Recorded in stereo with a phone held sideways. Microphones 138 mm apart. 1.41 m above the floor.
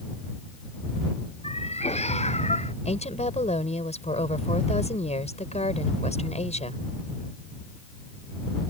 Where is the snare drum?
No snare drum in this recording.